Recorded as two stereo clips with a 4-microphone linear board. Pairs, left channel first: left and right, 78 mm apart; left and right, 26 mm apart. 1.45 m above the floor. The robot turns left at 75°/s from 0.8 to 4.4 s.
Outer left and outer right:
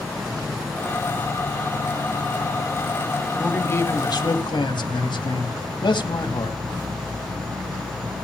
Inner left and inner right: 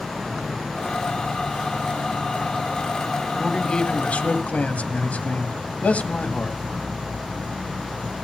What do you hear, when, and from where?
0.0 s an insect: 175° right, 3 m; by 8.2 s 85° right, 3 m
3.4 s a man speaking: 170° left, 1.9 m; by 6.6 s 90° left, 1.9 m